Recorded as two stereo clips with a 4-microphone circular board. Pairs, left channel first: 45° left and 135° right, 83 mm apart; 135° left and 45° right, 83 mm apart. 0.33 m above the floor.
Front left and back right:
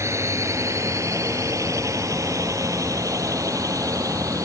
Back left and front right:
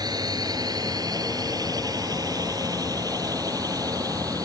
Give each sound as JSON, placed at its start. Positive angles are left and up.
{"t": 0.0, "sound": "a drone", "azimuth_deg": -80}